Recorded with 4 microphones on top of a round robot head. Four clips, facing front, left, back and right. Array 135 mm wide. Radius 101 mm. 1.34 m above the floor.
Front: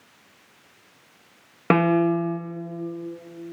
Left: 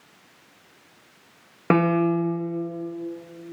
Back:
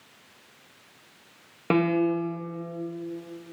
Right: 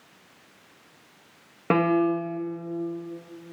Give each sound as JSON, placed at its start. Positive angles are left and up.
{"t": 1.7, "sound": "a piano", "azimuth_deg": 25, "distance_m": 0.6}